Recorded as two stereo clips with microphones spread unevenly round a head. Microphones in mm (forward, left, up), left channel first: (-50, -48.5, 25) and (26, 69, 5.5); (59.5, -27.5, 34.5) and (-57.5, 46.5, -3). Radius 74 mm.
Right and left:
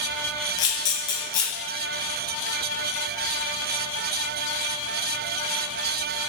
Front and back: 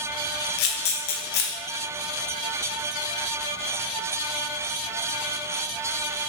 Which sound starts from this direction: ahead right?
A camera shutter, at 0.6 s.